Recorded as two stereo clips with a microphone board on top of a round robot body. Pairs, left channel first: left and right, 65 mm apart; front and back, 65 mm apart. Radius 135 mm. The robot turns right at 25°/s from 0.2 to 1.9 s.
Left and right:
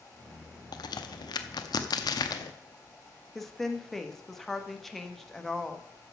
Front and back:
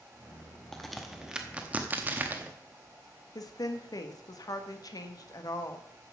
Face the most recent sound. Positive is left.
turn(degrees=5)